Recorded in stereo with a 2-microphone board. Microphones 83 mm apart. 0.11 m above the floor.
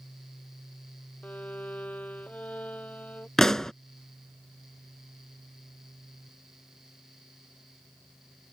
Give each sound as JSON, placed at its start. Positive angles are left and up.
{"t": 1.2, "sound": "a violin", "side_deg": 20}
{"t": 3.4, "sound": "a pop", "side_deg": 5}